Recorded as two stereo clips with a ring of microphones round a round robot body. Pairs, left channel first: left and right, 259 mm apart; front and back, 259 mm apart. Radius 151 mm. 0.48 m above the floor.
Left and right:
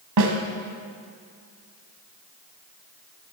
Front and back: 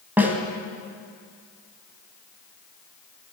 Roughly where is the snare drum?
Right.